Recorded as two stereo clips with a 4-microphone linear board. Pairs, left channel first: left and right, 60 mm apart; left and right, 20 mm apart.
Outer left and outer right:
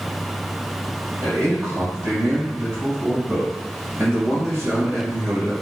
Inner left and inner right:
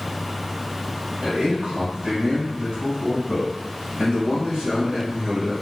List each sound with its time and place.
1.2 s a man speaking: 65° right (ahead or behind), 1.4 m; by 5.5 s 35° right (ahead or behind), 3.5 m